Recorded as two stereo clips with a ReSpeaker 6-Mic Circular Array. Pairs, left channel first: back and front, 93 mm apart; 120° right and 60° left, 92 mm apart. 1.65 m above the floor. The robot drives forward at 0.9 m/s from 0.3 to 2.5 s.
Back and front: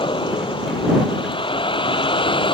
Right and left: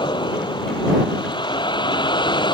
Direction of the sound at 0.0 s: 155° right.